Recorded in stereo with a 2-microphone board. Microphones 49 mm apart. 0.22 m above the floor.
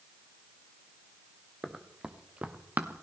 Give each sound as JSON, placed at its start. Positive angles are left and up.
{"t": 1.6, "sound": "running footsteps", "side_deg": -10, "distance_m": 1.7}